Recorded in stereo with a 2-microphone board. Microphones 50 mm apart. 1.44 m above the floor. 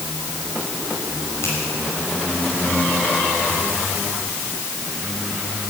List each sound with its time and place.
1.4 s a finger snap: 75° left (ahead or behind), 6.5 m